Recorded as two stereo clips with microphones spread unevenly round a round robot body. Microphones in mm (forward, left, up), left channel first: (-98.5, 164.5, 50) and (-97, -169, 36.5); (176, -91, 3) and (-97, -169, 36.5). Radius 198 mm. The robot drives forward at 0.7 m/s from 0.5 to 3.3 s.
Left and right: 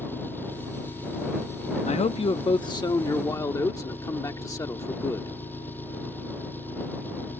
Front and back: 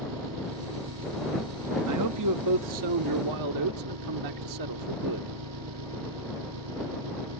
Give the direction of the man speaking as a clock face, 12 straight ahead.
7 o'clock.